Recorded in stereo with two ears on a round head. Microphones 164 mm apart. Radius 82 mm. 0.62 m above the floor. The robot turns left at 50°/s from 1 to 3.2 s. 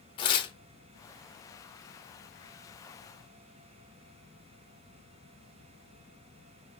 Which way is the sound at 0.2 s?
25° left (ahead or behind).